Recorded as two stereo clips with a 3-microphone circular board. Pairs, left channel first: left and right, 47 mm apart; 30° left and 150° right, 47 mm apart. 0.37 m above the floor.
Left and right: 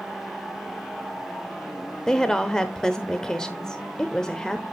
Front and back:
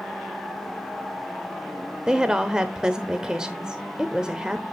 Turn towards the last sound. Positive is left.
turn(degrees=155)